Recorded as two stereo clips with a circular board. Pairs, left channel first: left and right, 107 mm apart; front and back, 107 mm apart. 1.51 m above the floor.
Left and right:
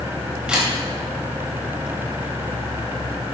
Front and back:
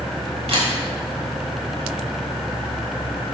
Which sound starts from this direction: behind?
A camera shutter, at 0.5 s.